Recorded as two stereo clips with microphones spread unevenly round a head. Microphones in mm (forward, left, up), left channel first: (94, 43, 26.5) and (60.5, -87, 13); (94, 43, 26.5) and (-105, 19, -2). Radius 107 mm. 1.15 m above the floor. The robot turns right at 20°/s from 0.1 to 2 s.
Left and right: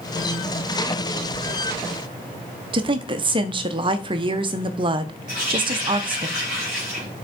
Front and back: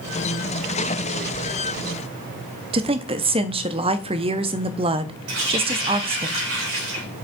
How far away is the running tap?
About 3.5 m.